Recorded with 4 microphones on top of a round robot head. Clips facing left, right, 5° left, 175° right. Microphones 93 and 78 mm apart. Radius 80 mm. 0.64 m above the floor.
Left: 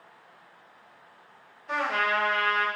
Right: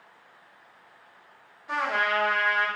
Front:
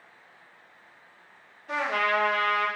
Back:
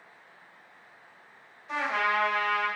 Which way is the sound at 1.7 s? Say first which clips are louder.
Even, front 2 dB; 5° right.